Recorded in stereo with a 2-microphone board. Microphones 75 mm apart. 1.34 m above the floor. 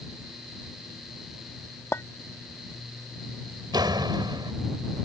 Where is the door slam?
70° right (ahead or behind).